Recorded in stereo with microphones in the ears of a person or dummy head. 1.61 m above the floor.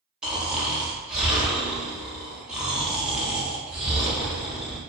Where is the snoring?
5° right (ahead or behind), 0.5 m.